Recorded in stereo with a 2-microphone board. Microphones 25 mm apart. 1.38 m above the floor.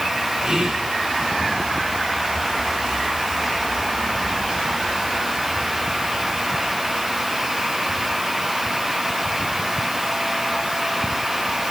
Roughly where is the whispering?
Right.